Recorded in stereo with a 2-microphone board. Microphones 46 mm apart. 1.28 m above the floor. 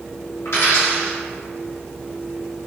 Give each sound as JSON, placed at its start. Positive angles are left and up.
{"t": 0.5, "sound": "a dropped coin", "side_deg": 70, "distance_m": 1.5}